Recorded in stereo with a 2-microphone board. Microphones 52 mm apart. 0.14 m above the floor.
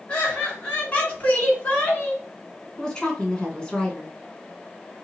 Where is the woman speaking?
15° left (ahead or behind), 1.1 m.